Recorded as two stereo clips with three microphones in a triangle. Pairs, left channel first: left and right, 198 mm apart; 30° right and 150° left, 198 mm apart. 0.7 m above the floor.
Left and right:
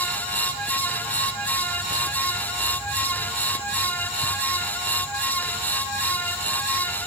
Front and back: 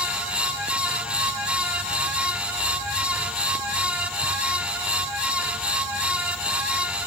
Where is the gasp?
I don't hear a gasp.